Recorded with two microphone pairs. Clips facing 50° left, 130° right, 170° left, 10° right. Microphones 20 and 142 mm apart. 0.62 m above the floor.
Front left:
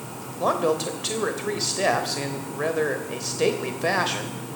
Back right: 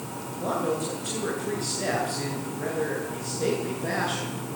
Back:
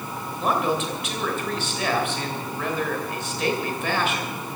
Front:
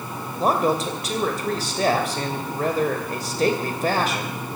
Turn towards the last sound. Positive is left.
turn(degrees=40)